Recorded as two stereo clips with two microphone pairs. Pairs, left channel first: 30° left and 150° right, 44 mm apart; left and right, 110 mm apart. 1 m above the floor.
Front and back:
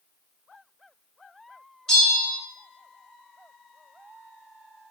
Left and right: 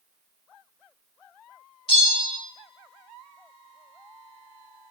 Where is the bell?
105° left, 1.0 m.